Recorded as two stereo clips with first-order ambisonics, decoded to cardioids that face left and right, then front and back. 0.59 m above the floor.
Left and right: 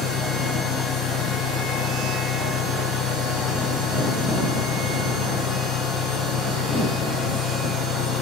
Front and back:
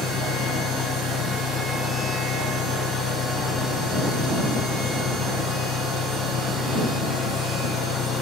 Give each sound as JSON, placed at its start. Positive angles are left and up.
{"t": 0.0, "sound": "an engine running", "azimuth_deg": 50}